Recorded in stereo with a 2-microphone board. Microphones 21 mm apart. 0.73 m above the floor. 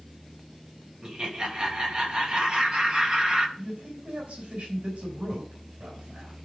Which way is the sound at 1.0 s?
40° right (ahead or behind).